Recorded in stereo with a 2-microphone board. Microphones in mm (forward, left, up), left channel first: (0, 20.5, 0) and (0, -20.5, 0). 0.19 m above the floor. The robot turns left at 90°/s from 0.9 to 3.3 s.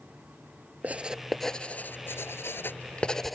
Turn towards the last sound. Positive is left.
turn(degrees=0)  # may be behind; listen again after turning